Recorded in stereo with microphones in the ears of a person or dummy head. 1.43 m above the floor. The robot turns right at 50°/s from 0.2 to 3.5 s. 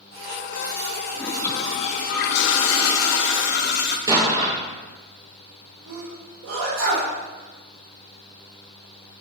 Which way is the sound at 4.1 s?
25° right (ahead or behind).